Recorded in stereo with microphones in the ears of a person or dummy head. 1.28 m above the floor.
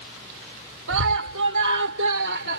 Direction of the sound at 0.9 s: 80° right.